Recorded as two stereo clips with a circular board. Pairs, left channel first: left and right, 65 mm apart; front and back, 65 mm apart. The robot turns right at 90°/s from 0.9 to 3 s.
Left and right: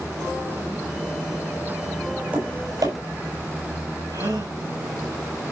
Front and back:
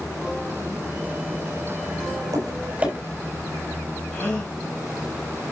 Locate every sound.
2.3 s tapping: 160° right, 6.5 m; by 2.9 s 105° right, 6.5 m
4.1 s a gasp: 75° right, 5 m